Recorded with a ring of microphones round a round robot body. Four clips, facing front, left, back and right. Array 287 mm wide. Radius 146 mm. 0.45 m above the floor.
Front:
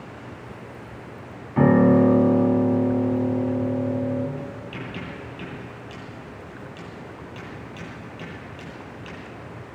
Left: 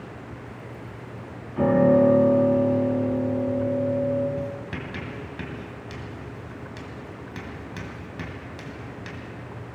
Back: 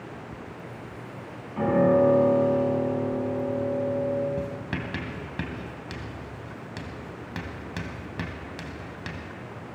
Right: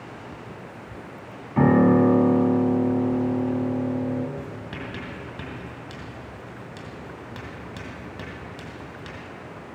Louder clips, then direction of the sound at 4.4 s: Left 3 dB, back 2 dB; 175° left.